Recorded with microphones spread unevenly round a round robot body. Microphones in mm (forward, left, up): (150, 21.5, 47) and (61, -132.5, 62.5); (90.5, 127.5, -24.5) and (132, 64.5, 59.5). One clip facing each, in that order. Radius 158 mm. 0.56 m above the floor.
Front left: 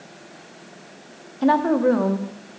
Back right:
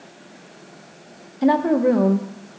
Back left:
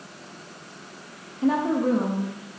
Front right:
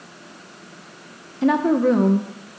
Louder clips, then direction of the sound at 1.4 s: Back right 1 dB, front right 5 dB; 55° right.